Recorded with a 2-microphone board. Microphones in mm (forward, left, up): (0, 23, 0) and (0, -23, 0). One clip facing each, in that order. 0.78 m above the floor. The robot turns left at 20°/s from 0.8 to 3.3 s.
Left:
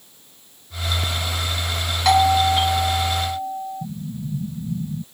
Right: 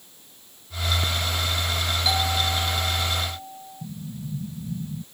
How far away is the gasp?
I don't hear a gasp.